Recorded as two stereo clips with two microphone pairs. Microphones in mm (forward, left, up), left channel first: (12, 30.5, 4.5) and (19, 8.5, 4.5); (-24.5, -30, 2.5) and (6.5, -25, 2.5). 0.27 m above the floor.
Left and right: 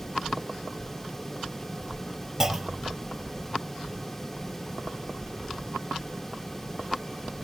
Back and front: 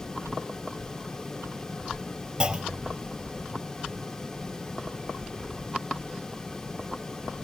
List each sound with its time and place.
2.4 s a clunk: 20° right